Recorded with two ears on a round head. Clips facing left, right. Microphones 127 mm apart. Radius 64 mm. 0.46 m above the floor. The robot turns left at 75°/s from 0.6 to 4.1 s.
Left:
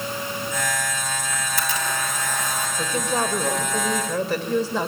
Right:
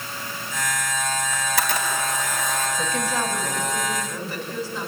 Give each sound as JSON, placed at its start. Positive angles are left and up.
{"t": 1.3, "sound": "a camera shutter", "side_deg": -70, "distance_m": 4.0}
{"t": 2.8, "sound": "a woman speaking", "azimuth_deg": 175, "distance_m": 2.0}